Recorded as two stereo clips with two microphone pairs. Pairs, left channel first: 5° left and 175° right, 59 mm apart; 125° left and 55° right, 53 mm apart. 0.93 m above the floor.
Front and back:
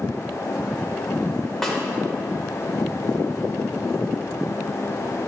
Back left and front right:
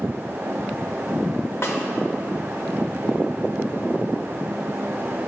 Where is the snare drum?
95° left, 1.5 m.